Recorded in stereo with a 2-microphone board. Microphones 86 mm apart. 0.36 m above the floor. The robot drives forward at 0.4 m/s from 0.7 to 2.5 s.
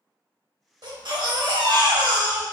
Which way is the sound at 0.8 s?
60° right (ahead or behind).